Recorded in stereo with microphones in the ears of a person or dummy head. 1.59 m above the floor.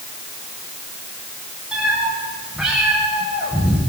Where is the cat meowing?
5° right (ahead or behind), 9 m.